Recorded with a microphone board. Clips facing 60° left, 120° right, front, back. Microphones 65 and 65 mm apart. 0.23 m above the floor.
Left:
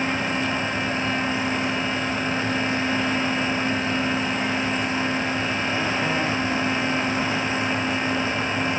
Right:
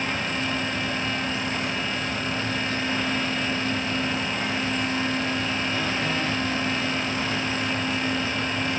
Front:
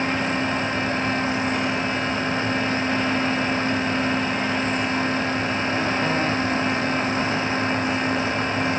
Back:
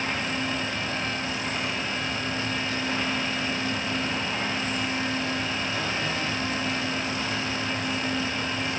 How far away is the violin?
I don't hear a violin.